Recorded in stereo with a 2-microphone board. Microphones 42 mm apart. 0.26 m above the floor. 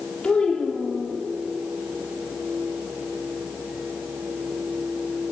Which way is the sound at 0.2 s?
25° left (ahead or behind).